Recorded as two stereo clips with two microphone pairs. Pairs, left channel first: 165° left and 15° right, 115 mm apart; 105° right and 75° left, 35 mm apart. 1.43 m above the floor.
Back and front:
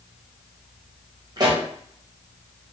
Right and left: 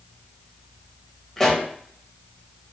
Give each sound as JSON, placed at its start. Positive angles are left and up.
{"t": 1.4, "sound": "a pop", "azimuth_deg": -35, "distance_m": 0.8}